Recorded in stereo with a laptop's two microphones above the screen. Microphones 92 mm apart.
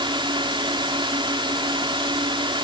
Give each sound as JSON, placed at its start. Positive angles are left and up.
{"t": 0.0, "sound": "a drone", "side_deg": -60}